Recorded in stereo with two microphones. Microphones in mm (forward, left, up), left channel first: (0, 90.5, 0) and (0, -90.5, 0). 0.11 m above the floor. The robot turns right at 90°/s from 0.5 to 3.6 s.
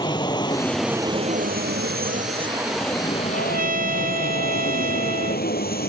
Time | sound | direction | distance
0.0 | an aircraft | 155° left | ?
3.3 | a trumpet | 65° right (ahead or behind) | ?